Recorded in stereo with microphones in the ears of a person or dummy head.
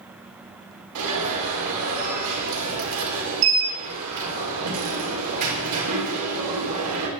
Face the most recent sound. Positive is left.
turn(degrees=-80)